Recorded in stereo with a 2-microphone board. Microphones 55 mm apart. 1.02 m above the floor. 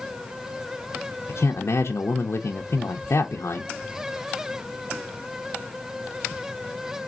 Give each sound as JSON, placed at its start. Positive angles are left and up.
{"t": 1.3, "sound": "a man speaking", "side_deg": 60, "distance_m": 0.5}